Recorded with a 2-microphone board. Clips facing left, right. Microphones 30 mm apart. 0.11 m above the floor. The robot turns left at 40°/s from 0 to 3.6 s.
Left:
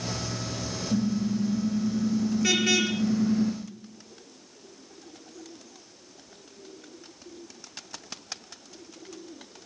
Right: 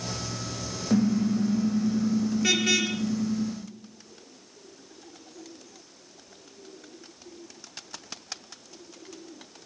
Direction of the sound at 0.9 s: 115° right.